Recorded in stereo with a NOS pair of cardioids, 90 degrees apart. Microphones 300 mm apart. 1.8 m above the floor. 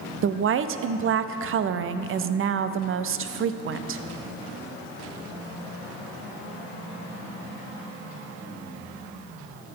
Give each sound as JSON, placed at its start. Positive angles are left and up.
{"t": 0.2, "sound": "a woman speaking", "azimuth_deg": -45, "distance_m": 0.5}